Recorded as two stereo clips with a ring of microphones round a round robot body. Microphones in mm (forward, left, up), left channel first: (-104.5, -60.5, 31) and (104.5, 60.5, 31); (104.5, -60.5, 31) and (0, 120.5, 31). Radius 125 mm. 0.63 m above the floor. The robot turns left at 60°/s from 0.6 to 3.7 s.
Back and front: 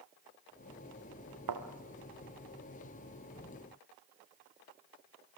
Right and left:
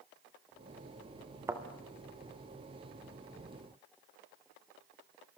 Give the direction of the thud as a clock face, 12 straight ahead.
11 o'clock.